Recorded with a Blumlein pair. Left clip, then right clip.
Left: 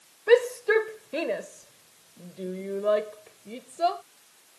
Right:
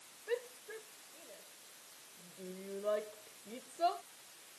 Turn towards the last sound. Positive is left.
turn(degrees=65)